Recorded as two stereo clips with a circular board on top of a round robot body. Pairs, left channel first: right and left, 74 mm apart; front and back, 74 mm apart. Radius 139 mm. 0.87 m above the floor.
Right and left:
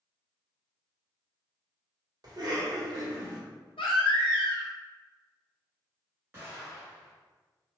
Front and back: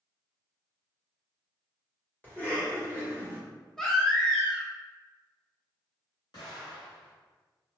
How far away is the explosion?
About 1.6 m.